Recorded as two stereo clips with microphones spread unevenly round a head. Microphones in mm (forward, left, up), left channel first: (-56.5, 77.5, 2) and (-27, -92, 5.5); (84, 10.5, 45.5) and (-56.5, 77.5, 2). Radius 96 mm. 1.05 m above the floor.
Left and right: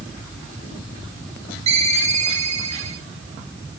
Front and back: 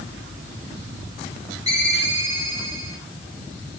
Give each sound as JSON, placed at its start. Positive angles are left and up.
{"t": 1.7, "sound": "a ringtone", "azimuth_deg": -135, "distance_m": 2.5}